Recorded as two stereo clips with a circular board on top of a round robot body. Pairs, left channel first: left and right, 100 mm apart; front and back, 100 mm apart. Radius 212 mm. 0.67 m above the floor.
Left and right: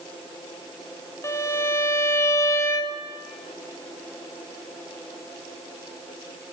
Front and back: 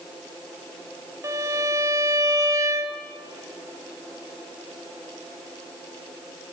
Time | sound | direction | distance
1.2 | a violin | 135° left | 1.0 m